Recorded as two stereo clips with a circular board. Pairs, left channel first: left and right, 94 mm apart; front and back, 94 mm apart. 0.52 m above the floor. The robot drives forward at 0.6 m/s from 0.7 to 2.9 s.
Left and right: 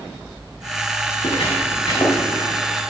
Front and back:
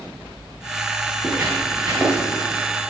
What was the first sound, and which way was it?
Footsteps, 120° left.